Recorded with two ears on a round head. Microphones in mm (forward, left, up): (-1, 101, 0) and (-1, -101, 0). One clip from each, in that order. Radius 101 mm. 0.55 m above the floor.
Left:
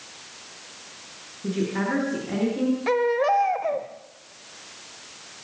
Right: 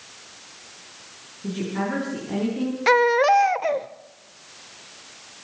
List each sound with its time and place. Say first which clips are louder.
1.4 s a woman speaking: left 1 dB; 15° left (ahead or behind), 9 m
2.9 s a baby crying: right 6 dB; 55° right (ahead or behind), 1.0 m